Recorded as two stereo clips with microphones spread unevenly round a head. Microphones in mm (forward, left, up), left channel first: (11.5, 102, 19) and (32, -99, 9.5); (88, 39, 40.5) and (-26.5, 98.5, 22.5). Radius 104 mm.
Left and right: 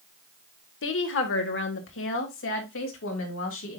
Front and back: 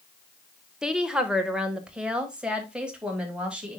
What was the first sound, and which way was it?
A woman speaking, 70° left.